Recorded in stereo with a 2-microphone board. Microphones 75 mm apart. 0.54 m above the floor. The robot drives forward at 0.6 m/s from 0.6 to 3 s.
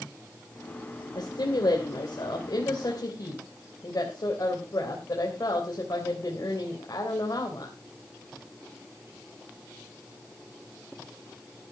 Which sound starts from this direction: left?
A woman speaking, at 1.1 s.